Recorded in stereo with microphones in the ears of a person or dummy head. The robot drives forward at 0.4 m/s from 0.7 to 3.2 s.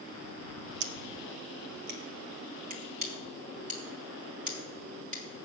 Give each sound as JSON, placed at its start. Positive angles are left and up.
{"t": 0.8, "sound": "scissors", "side_deg": -80, "distance_m": 1.0}